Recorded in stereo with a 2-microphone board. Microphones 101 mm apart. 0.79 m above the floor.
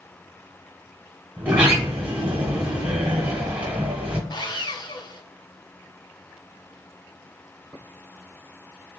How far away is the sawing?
About 0.5 m.